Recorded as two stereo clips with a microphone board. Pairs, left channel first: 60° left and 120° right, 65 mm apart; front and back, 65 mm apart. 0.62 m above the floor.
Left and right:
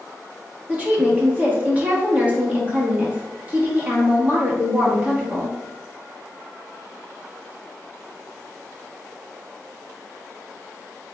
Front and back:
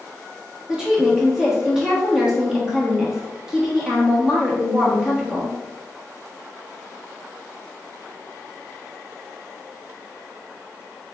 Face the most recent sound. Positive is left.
turn(degrees=-115)